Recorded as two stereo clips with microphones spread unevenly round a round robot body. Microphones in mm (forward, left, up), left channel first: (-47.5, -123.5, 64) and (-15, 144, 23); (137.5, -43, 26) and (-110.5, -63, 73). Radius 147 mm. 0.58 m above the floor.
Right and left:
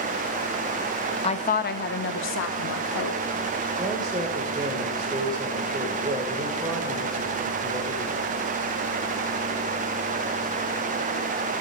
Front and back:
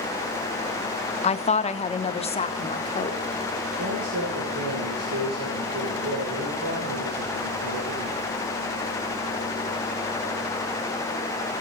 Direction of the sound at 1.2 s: 25° right.